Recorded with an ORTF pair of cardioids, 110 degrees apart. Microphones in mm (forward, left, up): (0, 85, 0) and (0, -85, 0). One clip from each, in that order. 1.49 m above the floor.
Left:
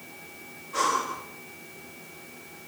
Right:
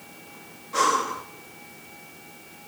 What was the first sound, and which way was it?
Breathing, 25° right.